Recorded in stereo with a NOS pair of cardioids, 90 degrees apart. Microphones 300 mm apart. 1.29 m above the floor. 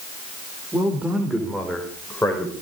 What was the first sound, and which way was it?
A man speaking, 10° right.